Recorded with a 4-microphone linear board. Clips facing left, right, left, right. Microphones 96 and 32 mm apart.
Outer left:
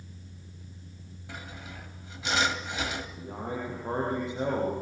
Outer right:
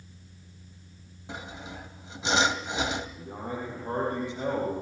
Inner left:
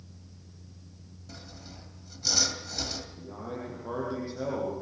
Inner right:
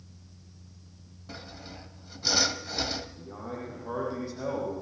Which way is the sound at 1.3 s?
25° right (ahead or behind).